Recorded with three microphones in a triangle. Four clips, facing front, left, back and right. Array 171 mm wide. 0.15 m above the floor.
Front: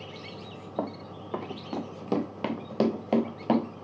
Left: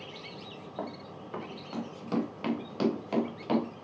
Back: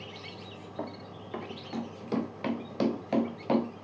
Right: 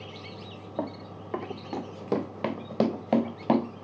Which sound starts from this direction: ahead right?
Running footsteps, at 0.8 s.